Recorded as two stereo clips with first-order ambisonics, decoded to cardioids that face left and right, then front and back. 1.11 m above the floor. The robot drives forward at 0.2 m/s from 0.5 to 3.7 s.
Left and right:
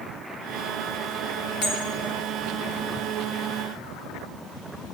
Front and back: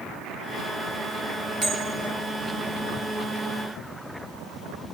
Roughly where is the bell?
Behind left.